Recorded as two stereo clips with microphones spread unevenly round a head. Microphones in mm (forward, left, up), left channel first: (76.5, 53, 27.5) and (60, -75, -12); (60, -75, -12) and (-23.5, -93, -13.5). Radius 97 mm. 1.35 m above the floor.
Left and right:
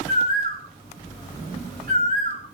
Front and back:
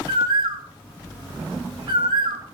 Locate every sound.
0.1 s a bird: 140° right, 5 m